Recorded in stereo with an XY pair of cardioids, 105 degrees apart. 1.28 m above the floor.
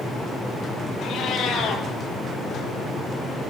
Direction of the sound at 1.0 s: 65° left.